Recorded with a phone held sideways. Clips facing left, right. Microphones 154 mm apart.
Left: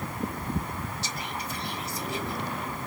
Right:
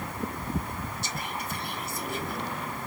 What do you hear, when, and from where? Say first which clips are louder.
1.0 s whispering: even; 50° right (ahead or behind), 1.0 m